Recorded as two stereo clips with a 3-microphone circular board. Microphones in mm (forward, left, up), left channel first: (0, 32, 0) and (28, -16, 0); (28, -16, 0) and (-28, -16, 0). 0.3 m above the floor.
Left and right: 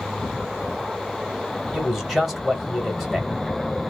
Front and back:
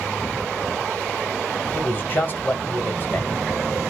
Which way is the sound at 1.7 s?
30° left.